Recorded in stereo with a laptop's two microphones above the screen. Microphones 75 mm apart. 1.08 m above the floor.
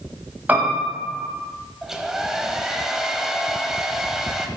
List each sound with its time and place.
0.5 s a piano: 25° right (ahead or behind), 1.5 m
1.8 s a hair dryer: 5° right (ahead or behind), 1.1 m